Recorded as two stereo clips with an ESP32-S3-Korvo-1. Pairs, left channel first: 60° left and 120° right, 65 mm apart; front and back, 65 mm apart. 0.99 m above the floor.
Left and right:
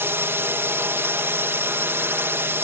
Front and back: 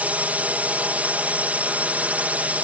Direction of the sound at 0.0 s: 130° right.